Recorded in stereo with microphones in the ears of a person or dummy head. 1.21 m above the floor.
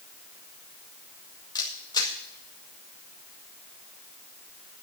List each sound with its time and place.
1.6 s a camera shutter: 20° left (ahead or behind), 2 m